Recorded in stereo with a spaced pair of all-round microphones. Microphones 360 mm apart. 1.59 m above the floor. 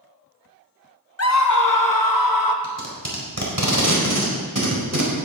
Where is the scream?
40° left (ahead or behind), 0.7 m; by 2.5 s 65° left (ahead or behind), 2.0 m.